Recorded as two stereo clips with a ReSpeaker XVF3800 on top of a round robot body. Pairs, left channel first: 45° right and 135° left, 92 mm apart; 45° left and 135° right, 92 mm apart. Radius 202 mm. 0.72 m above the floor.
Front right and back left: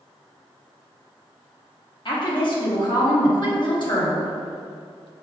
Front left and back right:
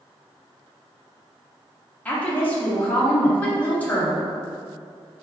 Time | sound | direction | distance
2.0 | a woman speaking | 25° right | 1.2 m